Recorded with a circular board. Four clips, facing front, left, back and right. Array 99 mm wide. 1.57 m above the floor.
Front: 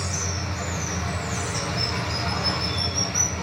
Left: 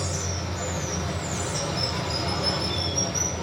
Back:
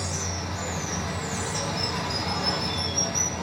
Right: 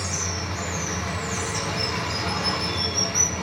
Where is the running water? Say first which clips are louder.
Even, front 1 dB; 65° right, 2 m.